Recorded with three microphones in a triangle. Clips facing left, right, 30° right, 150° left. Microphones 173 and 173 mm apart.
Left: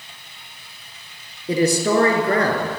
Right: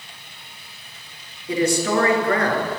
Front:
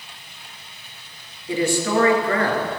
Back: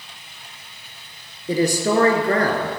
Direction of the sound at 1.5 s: 125° left.